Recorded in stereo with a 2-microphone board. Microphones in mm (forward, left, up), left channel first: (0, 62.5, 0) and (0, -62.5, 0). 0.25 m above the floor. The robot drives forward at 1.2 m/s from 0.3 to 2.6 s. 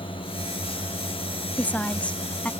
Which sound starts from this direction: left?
A drone, at 0.0 s.